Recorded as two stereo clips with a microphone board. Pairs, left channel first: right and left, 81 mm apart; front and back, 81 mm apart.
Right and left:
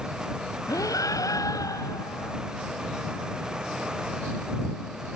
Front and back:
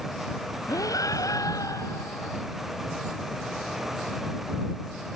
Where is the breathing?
45° right.